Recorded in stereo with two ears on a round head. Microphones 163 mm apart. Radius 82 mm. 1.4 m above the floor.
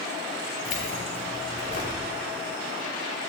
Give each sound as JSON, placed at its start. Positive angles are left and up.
{"t": 0.7, "sound": "keys jangling", "side_deg": 45, "distance_m": 3.0}